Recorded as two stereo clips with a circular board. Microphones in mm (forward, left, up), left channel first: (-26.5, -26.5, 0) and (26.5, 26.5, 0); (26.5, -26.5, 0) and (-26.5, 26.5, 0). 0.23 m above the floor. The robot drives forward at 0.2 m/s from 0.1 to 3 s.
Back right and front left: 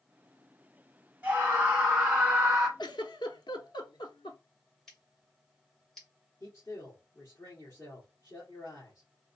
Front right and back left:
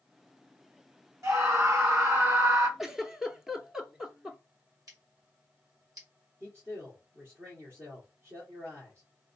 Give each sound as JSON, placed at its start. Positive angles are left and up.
{"t": 1.2, "sound": "a scream", "azimuth_deg": 105, "distance_m": 2.0}
{"t": 2.8, "sound": "a giggle", "azimuth_deg": -140, "distance_m": 0.7}
{"t": 4.9, "sound": "scissors", "azimuth_deg": 145, "distance_m": 3.0}
{"t": 6.4, "sound": "a man speaking", "azimuth_deg": -175, "distance_m": 2.5}